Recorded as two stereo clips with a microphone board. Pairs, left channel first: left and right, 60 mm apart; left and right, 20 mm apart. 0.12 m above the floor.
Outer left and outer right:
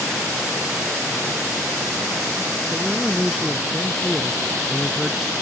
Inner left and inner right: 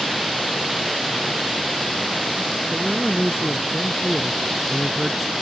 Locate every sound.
2.7 s a man speaking: 5° right (ahead or behind)